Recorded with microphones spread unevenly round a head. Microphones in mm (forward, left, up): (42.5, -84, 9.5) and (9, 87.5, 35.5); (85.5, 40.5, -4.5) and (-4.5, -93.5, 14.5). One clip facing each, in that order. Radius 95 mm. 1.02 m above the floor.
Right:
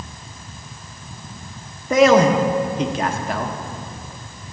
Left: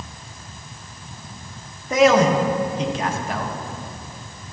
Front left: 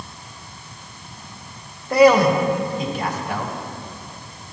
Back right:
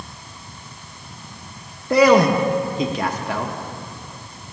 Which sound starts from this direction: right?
A man speaking, at 1.9 s.